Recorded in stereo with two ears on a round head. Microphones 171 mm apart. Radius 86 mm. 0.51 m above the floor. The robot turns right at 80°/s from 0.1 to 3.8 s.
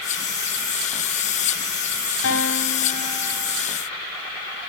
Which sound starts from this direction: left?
A guitar, at 2.2 s.